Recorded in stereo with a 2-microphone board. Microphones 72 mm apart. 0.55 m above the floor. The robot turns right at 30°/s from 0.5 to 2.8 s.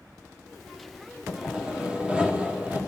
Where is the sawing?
10° right (ahead or behind), 1.2 m; by 2.8 s 20° right (ahead or behind), 1.2 m.